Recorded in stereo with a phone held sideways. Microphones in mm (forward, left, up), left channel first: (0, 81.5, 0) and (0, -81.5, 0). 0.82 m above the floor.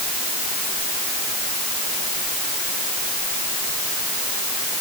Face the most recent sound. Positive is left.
No sound to turn to.